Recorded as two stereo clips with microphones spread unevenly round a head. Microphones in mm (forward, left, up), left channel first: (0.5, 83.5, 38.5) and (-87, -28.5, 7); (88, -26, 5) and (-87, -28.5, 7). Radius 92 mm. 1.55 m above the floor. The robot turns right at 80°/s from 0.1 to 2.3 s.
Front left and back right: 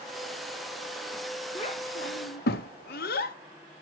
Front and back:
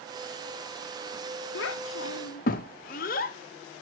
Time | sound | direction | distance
1.6 | a child speaking | 15° right | 1.4 m